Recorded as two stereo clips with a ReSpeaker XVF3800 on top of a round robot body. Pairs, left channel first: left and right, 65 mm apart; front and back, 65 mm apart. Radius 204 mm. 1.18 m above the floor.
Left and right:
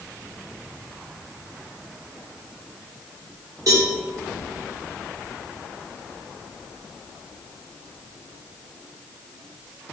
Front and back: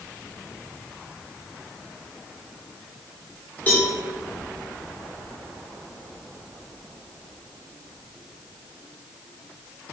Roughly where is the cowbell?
Ahead right.